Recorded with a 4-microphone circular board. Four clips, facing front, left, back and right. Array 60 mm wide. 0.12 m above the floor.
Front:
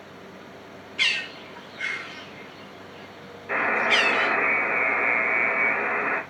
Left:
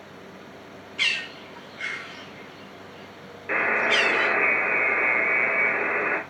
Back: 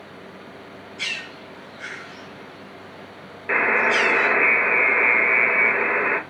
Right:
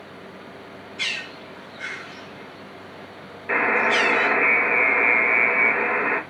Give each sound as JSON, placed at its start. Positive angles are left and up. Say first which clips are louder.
{"t": 1.0, "sound": "a bird", "louder": "left 3 dB, front 5 dB", "azimuth_deg": 25, "distance_m": 2.5}
{"t": 3.5, "sound": "a buzzer", "louder": "right 3 dB, back 3 dB", "azimuth_deg": -170, "distance_m": 1.9}